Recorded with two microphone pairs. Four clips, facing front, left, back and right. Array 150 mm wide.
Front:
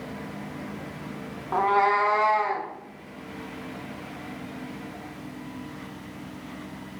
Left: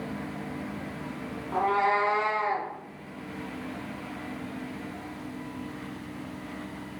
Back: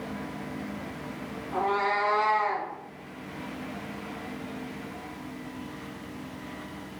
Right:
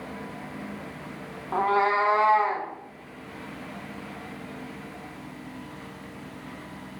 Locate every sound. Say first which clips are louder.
1.5 s a cat meowing: right 2 dB, front 6 dB; 25° right, 0.6 m; by 2.7 s 65° right, 1.1 m